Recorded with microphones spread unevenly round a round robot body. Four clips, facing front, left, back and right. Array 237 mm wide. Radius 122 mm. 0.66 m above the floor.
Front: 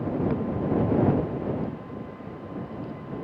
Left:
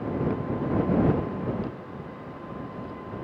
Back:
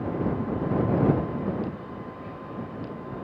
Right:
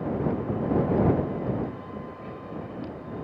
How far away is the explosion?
No explosion in this recording.